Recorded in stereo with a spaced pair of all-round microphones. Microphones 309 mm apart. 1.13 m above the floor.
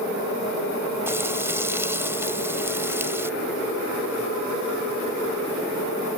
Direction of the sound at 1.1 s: 10° right (ahead or behind).